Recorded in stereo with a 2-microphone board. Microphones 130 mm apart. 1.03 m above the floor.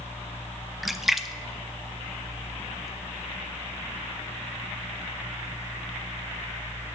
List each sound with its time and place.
0.8 s a splash: centre (ahead or behind), 0.6 m